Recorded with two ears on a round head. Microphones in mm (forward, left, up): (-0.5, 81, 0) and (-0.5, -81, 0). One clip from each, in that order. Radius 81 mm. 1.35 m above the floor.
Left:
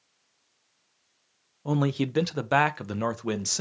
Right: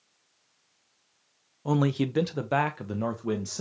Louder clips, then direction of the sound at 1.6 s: Right 1 dB; 10° right (ahead or behind).